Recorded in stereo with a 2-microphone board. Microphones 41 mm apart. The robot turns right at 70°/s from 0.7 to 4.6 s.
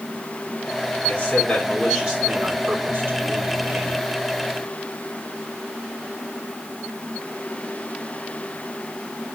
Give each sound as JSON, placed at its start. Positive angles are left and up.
{"t": 1.1, "sound": "a man speaking", "azimuth_deg": 135, "distance_m": 2.5}